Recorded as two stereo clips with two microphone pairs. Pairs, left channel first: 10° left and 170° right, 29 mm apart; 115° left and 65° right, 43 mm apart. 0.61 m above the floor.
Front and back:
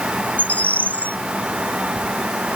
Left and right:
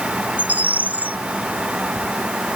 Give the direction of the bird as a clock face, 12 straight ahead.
1 o'clock.